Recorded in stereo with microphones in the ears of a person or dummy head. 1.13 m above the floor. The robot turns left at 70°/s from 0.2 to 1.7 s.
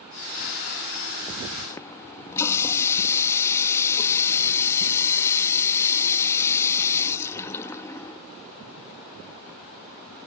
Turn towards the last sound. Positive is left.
turn(degrees=15)  # may be behind; listen again after turning